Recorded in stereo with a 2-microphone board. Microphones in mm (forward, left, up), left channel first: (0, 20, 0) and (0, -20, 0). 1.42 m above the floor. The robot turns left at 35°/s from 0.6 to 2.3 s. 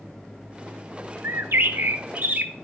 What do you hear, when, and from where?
1.2 s a bird: 100° right, 0.8 m; by 2.5 s 135° right, 0.8 m